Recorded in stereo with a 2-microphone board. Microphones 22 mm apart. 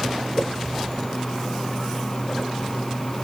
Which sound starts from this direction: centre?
A whoosh, at 0.4 s.